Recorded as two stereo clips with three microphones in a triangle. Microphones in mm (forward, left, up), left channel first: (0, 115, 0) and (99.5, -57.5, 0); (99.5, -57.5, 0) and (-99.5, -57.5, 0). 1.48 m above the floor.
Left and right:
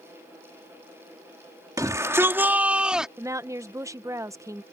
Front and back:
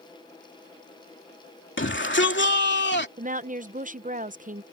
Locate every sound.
1.8 s a shout: 15° left; by 3.1 s 25° left
3.2 s a woman speaking: 135° right